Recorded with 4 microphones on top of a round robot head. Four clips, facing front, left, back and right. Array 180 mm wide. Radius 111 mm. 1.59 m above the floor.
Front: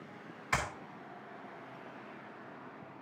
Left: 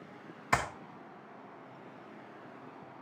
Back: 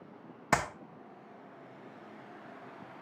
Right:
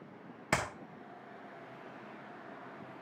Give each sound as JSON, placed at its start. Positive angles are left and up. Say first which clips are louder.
{"t": 0.5, "sound": "a clap", "louder": "left 3 dB, back 5 dB", "azimuth_deg": -155, "distance_m": 1.4}